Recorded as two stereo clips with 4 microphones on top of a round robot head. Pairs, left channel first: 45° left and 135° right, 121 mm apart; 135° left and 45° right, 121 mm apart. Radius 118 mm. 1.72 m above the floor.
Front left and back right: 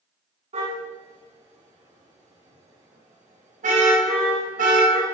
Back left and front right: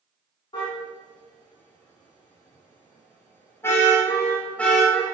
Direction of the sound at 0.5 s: 170° right.